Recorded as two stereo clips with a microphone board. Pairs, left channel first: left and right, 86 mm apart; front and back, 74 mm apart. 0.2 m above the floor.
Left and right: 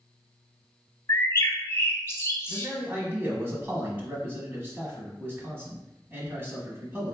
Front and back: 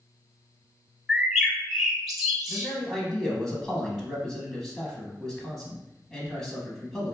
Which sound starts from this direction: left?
A bird, at 1.1 s.